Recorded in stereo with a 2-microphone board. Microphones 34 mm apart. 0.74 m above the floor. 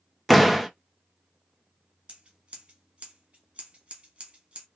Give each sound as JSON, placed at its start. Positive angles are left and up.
{"t": 0.3, "sound": "a door slam", "side_deg": 0, "distance_m": 0.5}
{"t": 2.1, "sound": "scissors", "side_deg": -35, "distance_m": 1.0}